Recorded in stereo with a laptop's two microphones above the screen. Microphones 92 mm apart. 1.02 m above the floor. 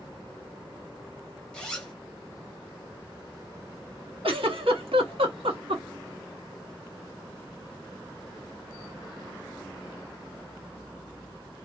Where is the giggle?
80° right, 1.1 m.